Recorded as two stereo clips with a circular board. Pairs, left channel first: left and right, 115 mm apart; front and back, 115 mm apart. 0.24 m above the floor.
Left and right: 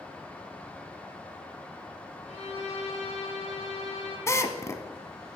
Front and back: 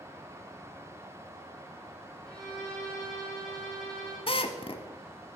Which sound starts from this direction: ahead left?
A drill, at 4.3 s.